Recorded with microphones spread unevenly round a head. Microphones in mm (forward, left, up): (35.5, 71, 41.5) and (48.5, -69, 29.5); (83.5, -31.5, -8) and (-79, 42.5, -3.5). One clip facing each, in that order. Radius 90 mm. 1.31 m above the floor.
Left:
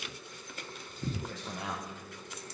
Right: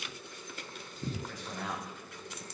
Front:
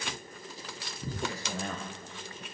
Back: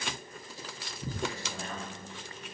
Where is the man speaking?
35° left, 1.1 m; by 2.4 s 85° right, 0.8 m.